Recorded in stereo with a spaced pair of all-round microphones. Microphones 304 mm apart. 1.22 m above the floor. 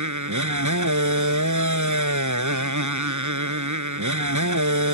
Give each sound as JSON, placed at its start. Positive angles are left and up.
{"t": 0.0, "sound": "a motorcycle", "side_deg": -80}